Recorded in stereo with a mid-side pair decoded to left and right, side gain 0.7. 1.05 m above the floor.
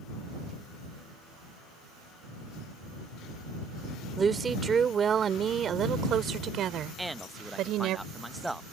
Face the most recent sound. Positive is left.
turn(degrees=-5)